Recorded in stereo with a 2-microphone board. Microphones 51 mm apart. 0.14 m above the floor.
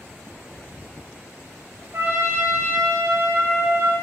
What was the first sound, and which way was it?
A trumpet, 55° right (ahead or behind).